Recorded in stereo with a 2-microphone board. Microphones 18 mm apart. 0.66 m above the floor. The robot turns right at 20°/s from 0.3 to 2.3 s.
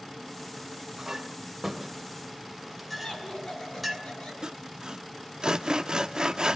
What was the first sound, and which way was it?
A clink, 30° right (ahead or behind).